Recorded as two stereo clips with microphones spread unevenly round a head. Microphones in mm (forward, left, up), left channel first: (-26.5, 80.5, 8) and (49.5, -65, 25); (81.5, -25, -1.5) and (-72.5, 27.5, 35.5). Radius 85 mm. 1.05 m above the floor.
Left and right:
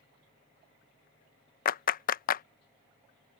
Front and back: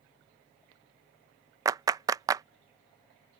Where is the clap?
85° left.